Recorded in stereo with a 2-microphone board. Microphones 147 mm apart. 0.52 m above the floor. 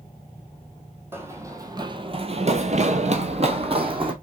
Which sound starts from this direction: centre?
Running footsteps, at 1.1 s.